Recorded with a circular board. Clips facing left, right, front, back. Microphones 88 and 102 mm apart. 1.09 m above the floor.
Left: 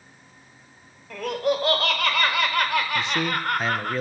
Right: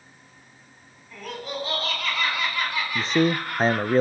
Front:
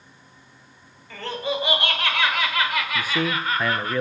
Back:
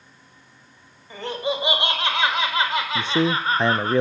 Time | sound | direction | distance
1.1 | laughter | 110° left | 4.5 m
3.0 | a man speaking | 125° right | 0.6 m